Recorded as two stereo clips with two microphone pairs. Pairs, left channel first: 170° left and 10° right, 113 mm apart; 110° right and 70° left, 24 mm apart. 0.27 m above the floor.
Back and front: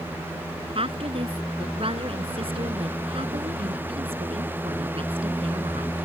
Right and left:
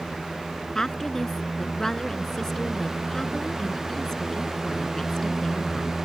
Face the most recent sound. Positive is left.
turn(degrees=-40)